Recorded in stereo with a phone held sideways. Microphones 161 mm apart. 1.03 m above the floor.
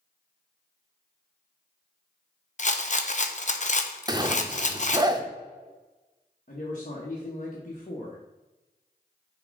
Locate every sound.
2.6 s a rattle: 50° left (ahead or behind), 0.7 m
4.1 s a zipper: 25° right (ahead or behind), 0.7 m
6.5 s a man speaking: 50° left (ahead or behind), 1.2 m